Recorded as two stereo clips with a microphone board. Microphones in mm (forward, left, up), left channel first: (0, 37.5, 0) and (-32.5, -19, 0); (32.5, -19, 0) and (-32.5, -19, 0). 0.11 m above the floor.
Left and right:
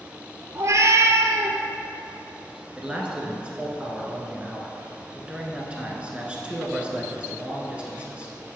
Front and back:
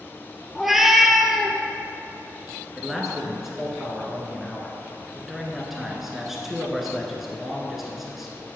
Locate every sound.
0.6 s a cat meowing: 95° right, 0.7 m
2.8 s a man speaking: 105° right, 1.1 m